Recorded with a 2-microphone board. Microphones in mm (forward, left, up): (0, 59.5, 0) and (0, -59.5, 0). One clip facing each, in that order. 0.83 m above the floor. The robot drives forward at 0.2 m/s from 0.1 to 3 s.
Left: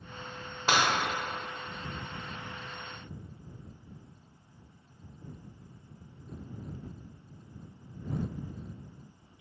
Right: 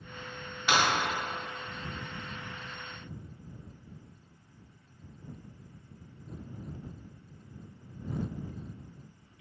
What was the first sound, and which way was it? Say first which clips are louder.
Breaking glass: even; 40° left (ahead or behind).